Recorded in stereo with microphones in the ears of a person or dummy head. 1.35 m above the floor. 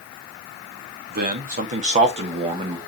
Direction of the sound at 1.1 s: 55° right (ahead or behind).